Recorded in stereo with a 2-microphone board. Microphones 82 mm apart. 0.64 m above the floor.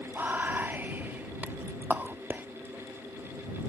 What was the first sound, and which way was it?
Whispering, 20° right (ahead or behind).